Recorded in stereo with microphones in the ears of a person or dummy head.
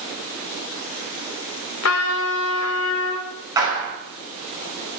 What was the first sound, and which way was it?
A trumpet, 80° left.